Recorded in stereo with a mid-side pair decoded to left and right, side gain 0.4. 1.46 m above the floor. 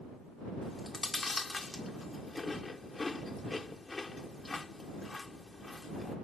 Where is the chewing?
25° left.